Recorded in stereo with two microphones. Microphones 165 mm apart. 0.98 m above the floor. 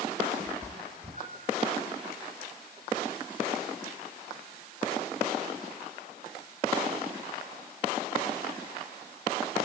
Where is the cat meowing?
40° right (ahead or behind), 2.0 m; by 1.7 s 55° right (ahead or behind), 3.5 m.